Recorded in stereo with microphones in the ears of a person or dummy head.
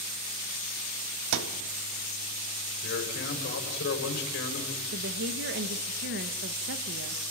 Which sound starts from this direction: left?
A man speaking, at 2.8 s.